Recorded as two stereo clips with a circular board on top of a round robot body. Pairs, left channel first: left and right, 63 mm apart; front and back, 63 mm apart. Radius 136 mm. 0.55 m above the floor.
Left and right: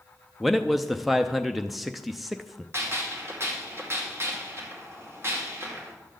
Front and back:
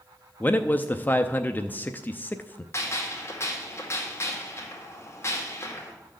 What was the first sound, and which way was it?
A man speaking, straight ahead.